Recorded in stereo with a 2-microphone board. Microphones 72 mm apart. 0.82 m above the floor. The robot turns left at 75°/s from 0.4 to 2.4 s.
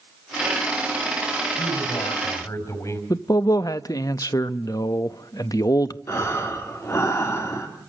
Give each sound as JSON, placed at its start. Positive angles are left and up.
{"t": 1.5, "sound": "a man speaking", "azimuth_deg": 115, "distance_m": 5.0}
{"t": 3.1, "sound": "a man speaking", "side_deg": 60, "distance_m": 0.7}
{"t": 6.1, "sound": "breathing", "side_deg": 45, "distance_m": 2.5}